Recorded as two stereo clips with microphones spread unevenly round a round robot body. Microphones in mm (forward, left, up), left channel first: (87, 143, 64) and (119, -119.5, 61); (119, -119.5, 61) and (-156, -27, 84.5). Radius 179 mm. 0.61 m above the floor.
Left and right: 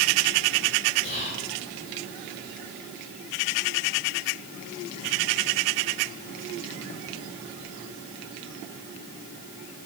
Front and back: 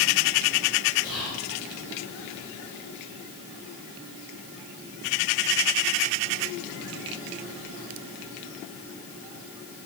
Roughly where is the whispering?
Ahead left.